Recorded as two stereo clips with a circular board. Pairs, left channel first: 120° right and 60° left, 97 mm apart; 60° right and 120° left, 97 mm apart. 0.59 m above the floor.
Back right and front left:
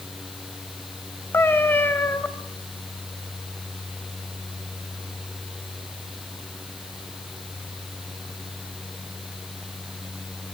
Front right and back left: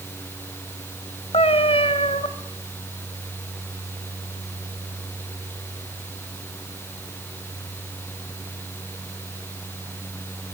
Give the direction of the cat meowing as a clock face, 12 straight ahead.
2 o'clock.